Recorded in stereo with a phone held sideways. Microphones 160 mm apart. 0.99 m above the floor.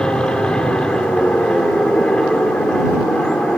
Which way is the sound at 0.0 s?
5° left (ahead or behind).